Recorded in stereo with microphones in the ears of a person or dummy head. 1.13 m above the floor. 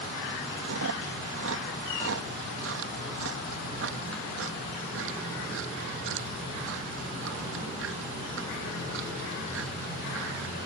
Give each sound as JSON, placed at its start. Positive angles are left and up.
{"t": 0.6, "sound": "chewing", "side_deg": -70}